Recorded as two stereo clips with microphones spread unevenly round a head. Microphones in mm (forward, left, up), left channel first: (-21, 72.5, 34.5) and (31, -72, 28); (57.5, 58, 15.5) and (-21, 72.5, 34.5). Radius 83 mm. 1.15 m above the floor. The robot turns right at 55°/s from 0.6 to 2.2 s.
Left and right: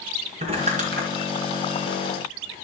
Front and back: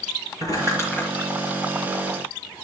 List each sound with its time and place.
0.4 s crumpling: 125° right, 3.5 m; by 1.1 s 95° right, 3.5 m